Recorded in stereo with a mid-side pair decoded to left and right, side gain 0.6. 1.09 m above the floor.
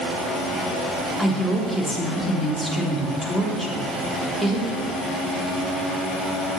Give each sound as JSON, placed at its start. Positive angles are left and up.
{"t": 1.2, "sound": "a woman speaking", "azimuth_deg": -5, "distance_m": 3.5}